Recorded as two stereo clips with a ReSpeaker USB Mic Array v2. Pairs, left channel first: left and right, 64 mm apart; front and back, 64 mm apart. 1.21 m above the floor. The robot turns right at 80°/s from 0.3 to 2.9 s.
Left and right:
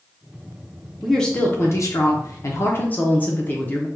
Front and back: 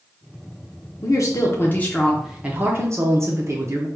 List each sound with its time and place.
1.0 s a woman speaking: 5° right, 0.7 m; by 3.9 s 150° left, 0.7 m